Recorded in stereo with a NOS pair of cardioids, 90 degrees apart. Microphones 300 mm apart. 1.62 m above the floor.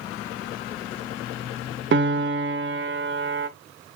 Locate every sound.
1.9 s a piano: 40° right, 1.0 m